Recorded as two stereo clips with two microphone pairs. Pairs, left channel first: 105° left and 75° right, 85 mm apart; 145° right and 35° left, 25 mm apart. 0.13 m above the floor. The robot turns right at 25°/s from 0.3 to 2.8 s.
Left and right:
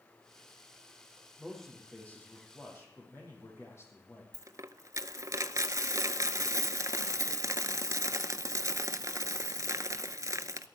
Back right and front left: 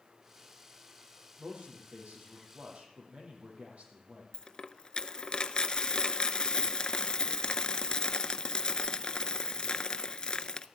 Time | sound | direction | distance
1.4 | a man speaking | 15° left | 6 m
4.3 | a dropped coin | 105° right | 0.6 m